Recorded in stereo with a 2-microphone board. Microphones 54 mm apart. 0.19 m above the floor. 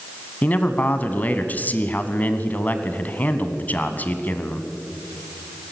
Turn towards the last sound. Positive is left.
turn(degrees=30)  # may be behind; listen again after turning